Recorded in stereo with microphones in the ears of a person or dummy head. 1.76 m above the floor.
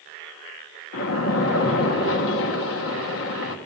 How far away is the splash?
About 1.7 m.